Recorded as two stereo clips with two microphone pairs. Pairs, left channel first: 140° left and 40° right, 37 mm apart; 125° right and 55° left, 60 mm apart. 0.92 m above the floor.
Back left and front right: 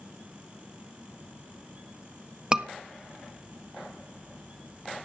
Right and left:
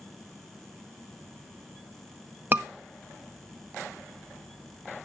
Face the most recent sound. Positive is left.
turn(degrees=20)